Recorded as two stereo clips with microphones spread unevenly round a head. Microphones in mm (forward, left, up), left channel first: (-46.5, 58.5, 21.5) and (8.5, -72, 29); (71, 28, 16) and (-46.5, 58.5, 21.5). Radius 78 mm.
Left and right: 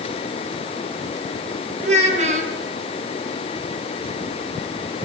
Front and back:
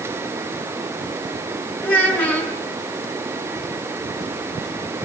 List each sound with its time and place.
1.8 s a child speaking: 110° right, 6.5 m